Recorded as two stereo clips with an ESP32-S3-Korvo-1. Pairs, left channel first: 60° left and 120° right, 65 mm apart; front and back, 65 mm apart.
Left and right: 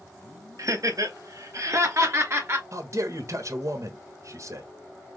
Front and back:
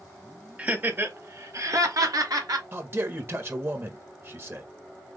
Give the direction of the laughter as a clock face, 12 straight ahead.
4 o'clock.